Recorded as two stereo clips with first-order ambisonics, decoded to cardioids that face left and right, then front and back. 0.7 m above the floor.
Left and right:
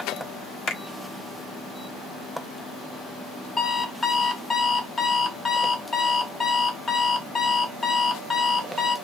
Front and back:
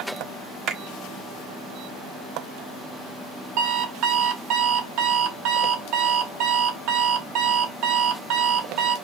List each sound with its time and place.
0.7 s a finger snap: 130° left, 0.9 m
3.6 s an alarm clock: 165° left, 0.7 m